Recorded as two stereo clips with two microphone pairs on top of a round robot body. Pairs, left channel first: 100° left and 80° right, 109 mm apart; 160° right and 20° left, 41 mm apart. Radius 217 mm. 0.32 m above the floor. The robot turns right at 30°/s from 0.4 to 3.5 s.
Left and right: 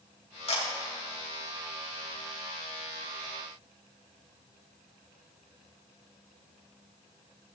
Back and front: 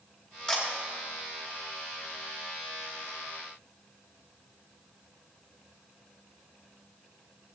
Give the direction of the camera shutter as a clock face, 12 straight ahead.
8 o'clock.